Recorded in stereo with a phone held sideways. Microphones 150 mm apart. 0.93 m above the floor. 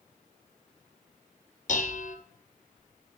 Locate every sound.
1.7 s dishes clattering: 55° left (ahead or behind), 1.0 m